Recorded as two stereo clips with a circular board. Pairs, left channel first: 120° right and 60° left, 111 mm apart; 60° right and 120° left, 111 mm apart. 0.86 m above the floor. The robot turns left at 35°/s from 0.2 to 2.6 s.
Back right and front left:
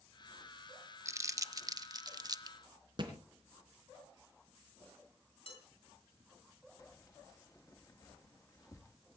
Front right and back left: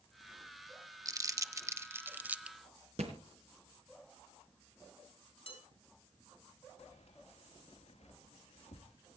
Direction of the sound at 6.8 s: 65° right.